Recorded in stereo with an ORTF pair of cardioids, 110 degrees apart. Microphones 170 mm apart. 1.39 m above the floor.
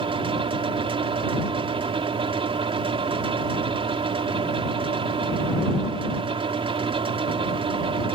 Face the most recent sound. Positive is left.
turn(degrees=-30)